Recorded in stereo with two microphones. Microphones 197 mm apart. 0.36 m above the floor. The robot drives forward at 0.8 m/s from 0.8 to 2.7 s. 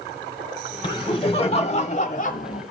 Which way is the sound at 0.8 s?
25° left (ahead or behind).